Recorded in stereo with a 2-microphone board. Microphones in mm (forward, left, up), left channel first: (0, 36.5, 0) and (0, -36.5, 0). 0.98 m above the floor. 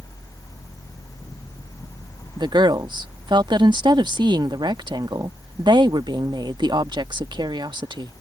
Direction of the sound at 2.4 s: 75° right (ahead or behind).